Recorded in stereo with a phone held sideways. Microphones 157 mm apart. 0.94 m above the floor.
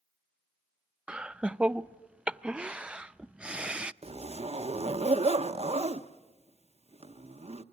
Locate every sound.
1.1 s laughter: 5° right (ahead or behind), 0.5 m
4.0 s a zipper: 40° right (ahead or behind), 0.7 m